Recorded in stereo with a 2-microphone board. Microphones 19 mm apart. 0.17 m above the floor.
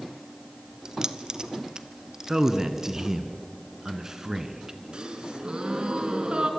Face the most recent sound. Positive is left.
turn(degrees=-45)  # may be behind; listen again after turning